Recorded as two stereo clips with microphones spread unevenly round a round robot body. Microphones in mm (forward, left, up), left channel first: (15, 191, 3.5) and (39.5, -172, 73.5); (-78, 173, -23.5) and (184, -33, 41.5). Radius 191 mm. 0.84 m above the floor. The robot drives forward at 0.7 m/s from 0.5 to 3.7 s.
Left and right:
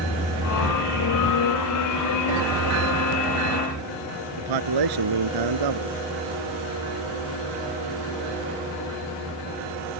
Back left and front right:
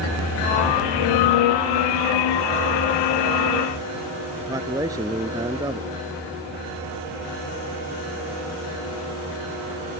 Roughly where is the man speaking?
Behind right.